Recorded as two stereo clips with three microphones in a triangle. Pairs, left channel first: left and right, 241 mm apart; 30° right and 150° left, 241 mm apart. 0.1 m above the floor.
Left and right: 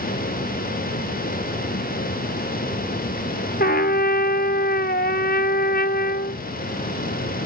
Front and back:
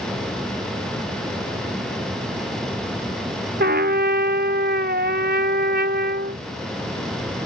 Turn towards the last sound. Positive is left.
turn(degrees=125)